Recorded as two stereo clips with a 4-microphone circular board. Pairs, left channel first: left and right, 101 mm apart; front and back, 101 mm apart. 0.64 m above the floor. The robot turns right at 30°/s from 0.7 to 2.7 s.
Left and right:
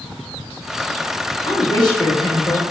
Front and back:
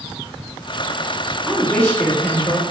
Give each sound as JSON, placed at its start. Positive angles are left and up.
{"t": 1.5, "sound": "a woman speaking", "azimuth_deg": 60, "distance_m": 0.7}